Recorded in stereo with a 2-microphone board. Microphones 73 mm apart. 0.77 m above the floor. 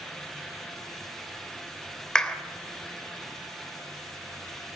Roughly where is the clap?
Centre.